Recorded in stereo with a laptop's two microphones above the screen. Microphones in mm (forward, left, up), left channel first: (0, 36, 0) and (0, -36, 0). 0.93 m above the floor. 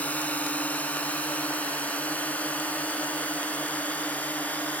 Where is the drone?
20° left (ahead or behind).